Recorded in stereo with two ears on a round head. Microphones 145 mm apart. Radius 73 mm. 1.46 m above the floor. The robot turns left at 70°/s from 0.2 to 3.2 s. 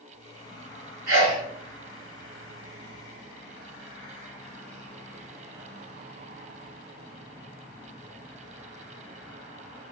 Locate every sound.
1.1 s a sneeze: 70° right (ahead or behind), 1.5 m; by 1.4 s 45° right (ahead or behind), 1.5 m